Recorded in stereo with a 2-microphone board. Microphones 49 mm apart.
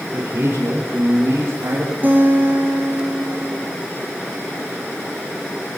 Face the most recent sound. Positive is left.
turn(degrees=-35)  # may be behind; listen again after turning